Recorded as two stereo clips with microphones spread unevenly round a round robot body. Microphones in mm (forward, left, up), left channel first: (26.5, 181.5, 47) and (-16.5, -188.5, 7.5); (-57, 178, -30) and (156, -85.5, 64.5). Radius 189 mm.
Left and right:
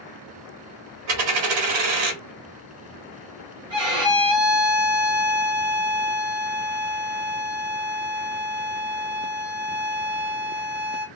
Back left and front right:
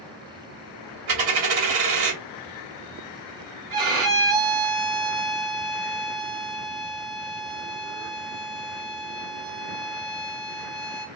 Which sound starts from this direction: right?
A dropped coin, at 1.1 s.